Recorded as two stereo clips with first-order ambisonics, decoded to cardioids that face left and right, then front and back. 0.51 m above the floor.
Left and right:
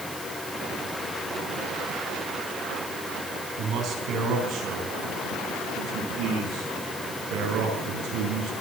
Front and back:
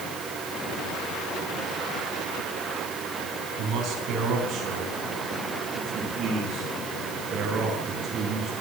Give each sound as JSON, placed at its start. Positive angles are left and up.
{"t": 3.6, "sound": "a man speaking", "azimuth_deg": -135, "distance_m": 5.0}